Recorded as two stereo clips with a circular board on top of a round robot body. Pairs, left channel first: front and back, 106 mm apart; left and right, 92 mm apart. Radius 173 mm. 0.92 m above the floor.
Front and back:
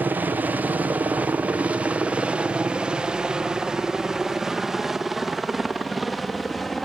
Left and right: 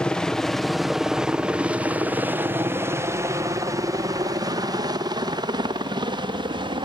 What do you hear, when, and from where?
0.0 s a helicopter: 150° left; by 6.8 s 90° right